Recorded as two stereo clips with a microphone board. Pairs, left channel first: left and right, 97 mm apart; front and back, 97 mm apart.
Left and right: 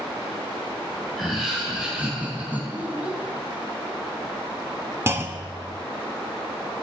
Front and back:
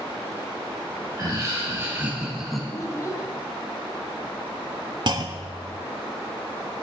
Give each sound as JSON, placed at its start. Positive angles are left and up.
{"t": 1.2, "sound": "laughter", "azimuth_deg": 180, "distance_m": 1.8}
{"t": 2.7, "sound": "a child speaking", "azimuth_deg": -25, "distance_m": 1.2}
{"t": 5.1, "sound": "a clunk", "azimuth_deg": -145, "distance_m": 0.5}